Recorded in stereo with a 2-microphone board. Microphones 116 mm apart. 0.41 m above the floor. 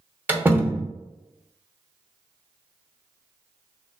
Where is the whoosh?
I don't hear a whoosh.